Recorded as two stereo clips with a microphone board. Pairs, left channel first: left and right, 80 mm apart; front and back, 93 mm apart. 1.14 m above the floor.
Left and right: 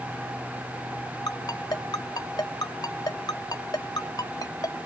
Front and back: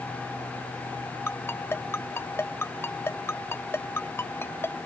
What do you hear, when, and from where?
1.3 s a ringtone: 60° left